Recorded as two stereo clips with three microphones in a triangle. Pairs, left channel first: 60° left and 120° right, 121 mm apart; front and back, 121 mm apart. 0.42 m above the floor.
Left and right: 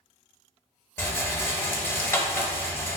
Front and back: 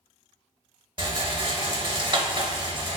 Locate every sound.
1.0 s a rattle: 130° left, 0.6 m